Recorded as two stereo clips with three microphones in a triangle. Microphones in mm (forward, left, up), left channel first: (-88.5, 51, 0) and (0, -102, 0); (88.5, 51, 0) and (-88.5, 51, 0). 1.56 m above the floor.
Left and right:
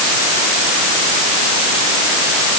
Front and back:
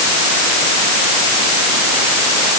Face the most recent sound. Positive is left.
No sound to turn to.